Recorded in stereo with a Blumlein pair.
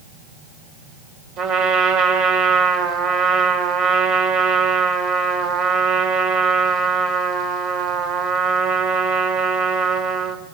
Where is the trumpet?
35° right, 4.5 m.